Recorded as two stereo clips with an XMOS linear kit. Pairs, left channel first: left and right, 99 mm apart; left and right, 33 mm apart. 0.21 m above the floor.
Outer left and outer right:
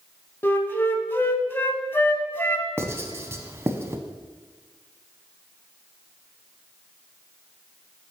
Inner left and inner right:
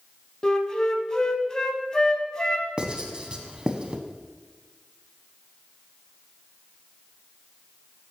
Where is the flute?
20° left (ahead or behind), 0.5 m.